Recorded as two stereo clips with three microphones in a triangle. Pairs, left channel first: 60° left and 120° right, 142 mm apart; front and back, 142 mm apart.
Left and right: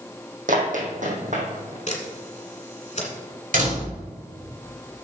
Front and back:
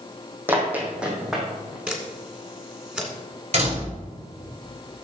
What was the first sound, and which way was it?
Running footsteps, 105° right.